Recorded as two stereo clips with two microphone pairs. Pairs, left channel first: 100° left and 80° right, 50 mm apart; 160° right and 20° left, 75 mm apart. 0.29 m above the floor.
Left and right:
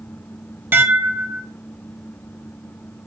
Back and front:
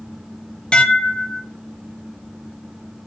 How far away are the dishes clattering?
About 1.0 m.